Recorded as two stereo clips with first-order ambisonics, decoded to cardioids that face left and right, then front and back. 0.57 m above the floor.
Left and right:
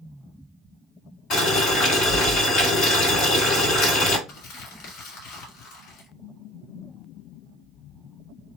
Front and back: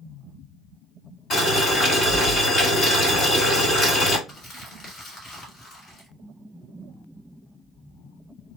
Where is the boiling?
50° left, 1.9 m.